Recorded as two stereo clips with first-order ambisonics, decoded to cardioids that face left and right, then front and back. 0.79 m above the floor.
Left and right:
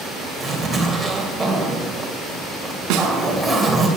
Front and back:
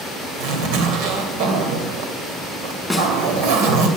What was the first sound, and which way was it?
A zipper, 175° right.